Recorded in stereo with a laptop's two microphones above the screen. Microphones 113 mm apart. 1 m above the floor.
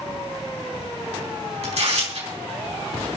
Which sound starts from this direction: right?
Tearing paper, at 1.6 s.